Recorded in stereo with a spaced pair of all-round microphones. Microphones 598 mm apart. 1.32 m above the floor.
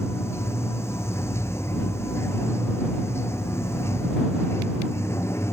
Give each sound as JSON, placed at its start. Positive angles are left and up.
{"t": 0.0, "sound": "running water", "side_deg": 5}